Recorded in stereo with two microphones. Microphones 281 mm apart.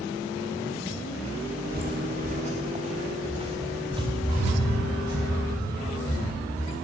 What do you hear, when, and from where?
1.7 s footsteps: 35° right (ahead or behind), 3 m; by 6.8 s 10° right (ahead or behind), 10 m